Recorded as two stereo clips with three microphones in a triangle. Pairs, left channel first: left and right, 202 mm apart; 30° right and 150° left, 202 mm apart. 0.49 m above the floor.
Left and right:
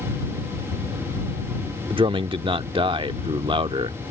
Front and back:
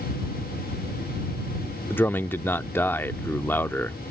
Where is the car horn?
No car horn in this recording.